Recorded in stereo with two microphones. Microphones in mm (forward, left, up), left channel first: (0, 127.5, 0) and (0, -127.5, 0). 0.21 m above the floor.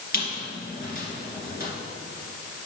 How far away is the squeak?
About 2.5 m.